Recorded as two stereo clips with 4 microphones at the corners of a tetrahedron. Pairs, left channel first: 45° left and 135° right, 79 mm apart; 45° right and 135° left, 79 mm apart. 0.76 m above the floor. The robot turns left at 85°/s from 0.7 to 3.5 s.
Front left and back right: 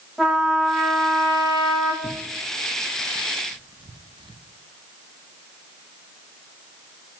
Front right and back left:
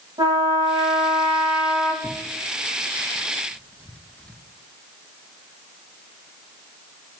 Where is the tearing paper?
5° left, 0.6 m; by 4.4 s 120° right, 0.6 m.